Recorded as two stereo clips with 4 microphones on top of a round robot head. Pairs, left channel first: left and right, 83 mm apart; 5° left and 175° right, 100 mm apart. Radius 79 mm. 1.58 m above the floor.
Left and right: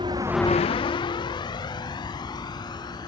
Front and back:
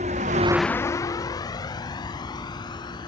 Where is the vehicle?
145° right; by 3.1 s 55° left.